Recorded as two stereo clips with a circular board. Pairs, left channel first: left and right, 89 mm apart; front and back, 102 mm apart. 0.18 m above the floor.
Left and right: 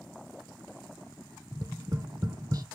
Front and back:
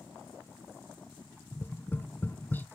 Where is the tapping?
65° right, 0.6 m.